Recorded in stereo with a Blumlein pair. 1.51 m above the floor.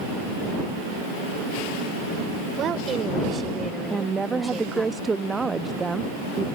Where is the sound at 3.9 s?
15° right.